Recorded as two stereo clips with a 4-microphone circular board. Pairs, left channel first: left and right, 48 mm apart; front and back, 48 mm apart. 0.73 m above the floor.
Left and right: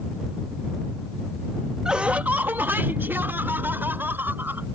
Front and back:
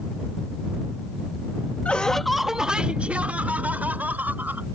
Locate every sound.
1.9 s laughter: 30° right; by 4.7 s 135° right